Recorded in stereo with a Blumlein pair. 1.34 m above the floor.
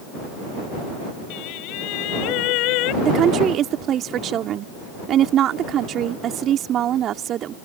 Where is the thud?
No thud in this recording.